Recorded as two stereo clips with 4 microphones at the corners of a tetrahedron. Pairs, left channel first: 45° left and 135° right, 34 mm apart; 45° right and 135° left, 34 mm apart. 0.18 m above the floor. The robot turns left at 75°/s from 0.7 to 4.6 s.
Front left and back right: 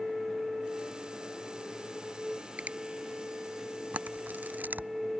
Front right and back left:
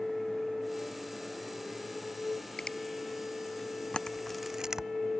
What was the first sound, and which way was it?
A finger snap, 110° right.